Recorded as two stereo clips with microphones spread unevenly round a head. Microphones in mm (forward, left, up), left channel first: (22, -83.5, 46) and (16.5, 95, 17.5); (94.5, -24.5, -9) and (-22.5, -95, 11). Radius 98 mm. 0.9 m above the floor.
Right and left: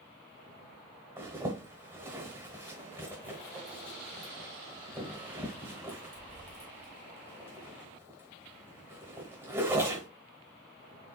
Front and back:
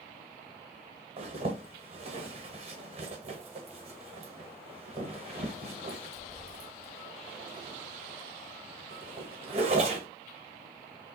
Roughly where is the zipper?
Behind.